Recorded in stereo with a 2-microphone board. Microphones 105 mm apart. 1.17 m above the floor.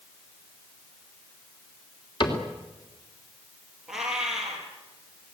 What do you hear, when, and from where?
2.2 s a cupboard door: 50° left (ahead or behind), 3 m
3.9 s a cat meowing: 5° right (ahead or behind), 5.5 m